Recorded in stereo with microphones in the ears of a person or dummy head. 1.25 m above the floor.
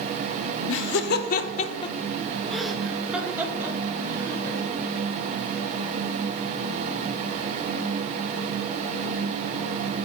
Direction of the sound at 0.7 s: 85° left.